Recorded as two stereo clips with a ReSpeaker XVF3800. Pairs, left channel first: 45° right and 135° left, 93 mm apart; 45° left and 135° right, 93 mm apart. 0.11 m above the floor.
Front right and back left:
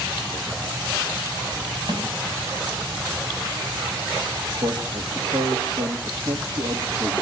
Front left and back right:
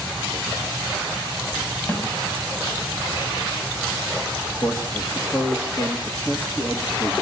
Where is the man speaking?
95° left, 3 m.